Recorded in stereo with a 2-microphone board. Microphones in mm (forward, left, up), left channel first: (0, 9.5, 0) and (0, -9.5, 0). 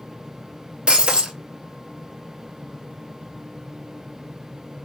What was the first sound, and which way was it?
Breaking glass, 55° right (ahead or behind).